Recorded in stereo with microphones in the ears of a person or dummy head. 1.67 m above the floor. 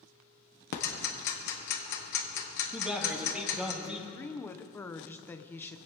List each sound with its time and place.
0.7 s ticking: 45° left (ahead or behind), 1.4 m
2.7 s a man speaking: 5° right (ahead or behind), 2.5 m
4.1 s a woman speaking: 10° left (ahead or behind), 0.7 m